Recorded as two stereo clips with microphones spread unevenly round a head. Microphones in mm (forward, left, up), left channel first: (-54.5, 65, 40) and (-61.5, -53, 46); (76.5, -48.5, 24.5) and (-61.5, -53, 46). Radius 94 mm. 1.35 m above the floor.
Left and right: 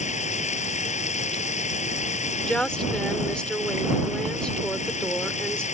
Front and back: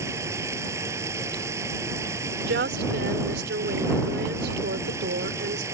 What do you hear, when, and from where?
0.0 s running water: 105° left
2.4 s a woman speaking: 170° left